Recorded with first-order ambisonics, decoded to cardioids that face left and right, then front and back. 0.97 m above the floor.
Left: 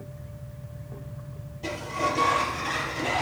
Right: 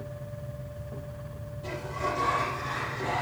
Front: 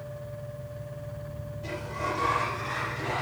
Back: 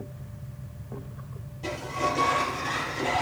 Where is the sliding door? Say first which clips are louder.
Left 4 dB, back 4 dB; 120° left, 5 m.